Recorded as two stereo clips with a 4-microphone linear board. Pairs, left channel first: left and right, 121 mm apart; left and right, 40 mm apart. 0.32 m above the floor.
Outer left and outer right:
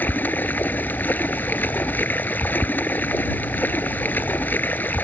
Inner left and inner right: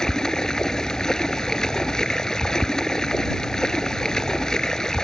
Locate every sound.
0.0 s running water: 15° left (ahead or behind)